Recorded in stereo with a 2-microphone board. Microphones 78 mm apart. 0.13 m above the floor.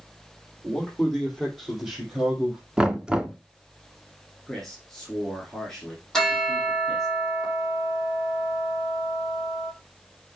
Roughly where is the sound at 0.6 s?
Centre.